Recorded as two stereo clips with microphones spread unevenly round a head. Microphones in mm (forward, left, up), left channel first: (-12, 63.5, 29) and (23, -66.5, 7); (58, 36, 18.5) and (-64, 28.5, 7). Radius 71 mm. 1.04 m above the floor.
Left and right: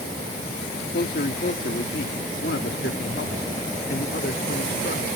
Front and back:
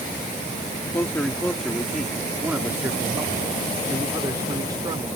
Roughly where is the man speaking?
Left.